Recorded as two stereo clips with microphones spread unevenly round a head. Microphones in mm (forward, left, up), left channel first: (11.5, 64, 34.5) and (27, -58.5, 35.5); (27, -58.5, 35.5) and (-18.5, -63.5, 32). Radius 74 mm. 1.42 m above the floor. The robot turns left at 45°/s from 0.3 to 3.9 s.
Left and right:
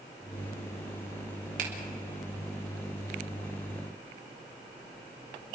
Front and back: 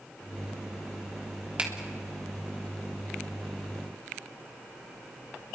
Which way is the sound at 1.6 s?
105° right.